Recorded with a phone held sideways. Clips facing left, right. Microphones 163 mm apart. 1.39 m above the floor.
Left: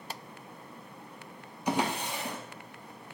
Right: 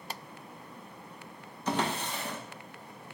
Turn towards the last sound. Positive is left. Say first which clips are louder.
# left 1 dB
turn(degrees=15)  # may be behind; listen again after turning